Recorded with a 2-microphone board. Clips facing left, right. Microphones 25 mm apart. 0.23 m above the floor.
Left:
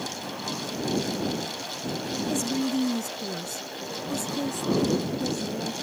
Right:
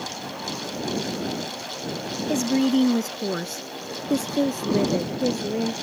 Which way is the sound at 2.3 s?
35° right (ahead or behind).